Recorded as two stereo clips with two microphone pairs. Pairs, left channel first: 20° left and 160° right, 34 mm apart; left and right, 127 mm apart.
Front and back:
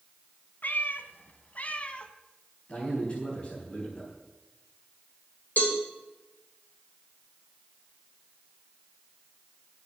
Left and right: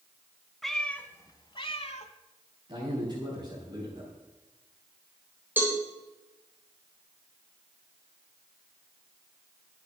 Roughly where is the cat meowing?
Ahead.